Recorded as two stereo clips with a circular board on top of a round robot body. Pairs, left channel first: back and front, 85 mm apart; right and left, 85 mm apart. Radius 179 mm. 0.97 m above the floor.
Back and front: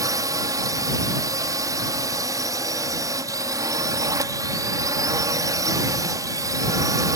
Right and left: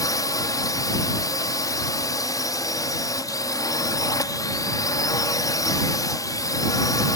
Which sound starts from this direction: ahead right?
A drone, at 0.0 s.